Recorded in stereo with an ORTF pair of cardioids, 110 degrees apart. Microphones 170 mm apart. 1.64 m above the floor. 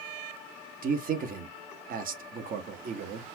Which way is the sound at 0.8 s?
55° right.